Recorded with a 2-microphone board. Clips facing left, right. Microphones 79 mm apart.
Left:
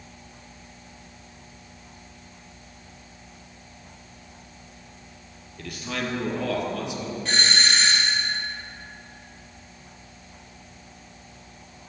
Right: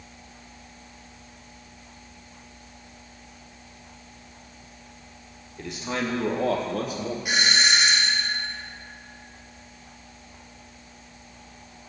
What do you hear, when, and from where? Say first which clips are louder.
5.6 s a man speaking: right 2 dB; 20° right (ahead or behind), 2.5 m; by 7.2 s 50° right (ahead or behind), 1.9 m
7.2 s a doorbell: right 1 dB; 10° right (ahead or behind), 2 m